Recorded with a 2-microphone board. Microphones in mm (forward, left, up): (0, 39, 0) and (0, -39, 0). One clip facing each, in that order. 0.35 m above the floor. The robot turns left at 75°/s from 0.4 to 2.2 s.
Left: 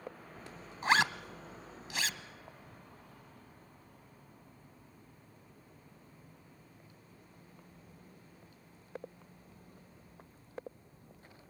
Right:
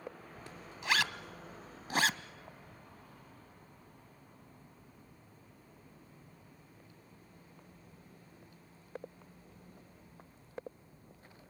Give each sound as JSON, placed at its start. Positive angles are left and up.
{"t": 0.8, "sound": "a zipper", "side_deg": 40, "distance_m": 0.7}